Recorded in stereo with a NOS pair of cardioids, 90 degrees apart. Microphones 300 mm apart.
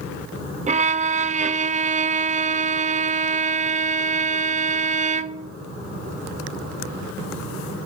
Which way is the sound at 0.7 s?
25° right.